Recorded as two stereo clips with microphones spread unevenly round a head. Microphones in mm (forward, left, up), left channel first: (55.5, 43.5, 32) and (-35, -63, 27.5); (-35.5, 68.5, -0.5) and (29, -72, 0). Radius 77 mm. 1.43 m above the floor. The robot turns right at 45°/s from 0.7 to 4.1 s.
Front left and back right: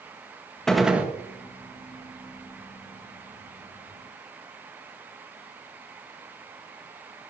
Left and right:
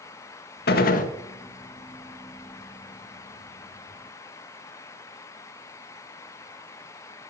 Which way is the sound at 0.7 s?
135° left.